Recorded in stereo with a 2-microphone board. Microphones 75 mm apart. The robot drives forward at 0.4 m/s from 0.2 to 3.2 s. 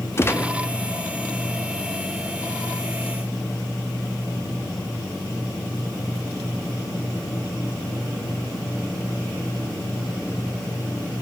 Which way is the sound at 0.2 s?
30° left (ahead or behind).